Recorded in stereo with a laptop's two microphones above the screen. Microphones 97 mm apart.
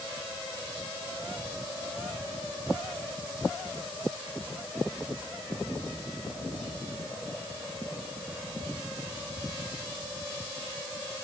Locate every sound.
Only background noise.